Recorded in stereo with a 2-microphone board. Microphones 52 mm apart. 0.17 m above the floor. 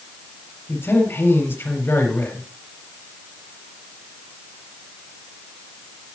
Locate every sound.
0.7 s a man speaking: 55° left (ahead or behind), 4 m